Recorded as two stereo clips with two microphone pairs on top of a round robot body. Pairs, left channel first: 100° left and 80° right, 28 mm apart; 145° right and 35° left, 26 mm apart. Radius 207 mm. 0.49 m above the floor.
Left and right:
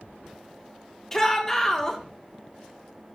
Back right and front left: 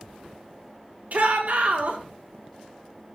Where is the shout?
35° left, 3 m.